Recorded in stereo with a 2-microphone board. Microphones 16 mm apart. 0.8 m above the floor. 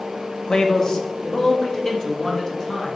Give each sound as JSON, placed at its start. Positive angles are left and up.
{"t": 0.5, "sound": "a man speaking", "side_deg": 45, "distance_m": 1.0}